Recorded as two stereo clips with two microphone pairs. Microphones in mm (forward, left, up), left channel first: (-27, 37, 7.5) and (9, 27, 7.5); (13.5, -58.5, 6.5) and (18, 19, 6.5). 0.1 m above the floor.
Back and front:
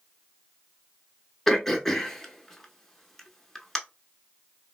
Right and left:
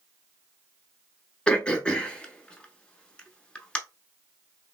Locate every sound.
1.5 s throat clearing: 135° right, 0.6 m